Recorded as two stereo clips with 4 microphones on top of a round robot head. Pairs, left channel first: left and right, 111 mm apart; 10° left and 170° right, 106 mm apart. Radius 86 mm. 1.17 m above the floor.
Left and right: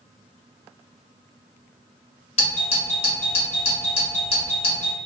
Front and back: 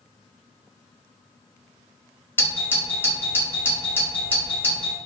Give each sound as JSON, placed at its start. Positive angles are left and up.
{"t": 2.4, "sound": "a doorbell", "azimuth_deg": 80, "distance_m": 1.6}